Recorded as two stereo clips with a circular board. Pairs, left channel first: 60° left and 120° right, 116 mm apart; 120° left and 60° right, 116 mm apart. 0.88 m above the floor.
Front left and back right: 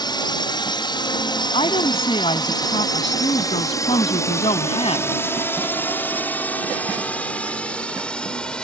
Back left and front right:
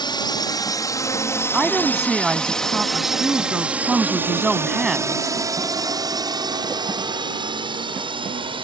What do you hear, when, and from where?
0.0 s a drone: 90° left; by 8.6 s 25° right
1.5 s a woman speaking: 25° left